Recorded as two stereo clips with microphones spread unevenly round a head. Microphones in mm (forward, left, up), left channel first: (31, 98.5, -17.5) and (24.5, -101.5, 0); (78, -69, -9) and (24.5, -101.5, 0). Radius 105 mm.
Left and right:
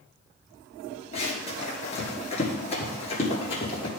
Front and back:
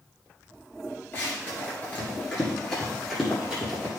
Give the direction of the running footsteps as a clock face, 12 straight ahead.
10 o'clock.